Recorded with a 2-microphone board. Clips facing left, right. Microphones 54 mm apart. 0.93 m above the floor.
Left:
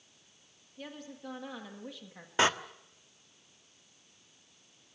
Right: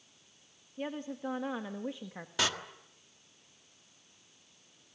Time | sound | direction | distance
0.8 | a woman speaking | 25° right (ahead or behind) | 1.5 m
2.4 | a door slam | 30° left (ahead or behind) | 1.4 m